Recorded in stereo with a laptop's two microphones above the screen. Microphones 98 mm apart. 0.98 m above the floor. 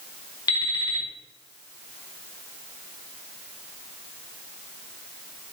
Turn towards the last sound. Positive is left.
turn(degrees=40)  # may be behind; listen again after turning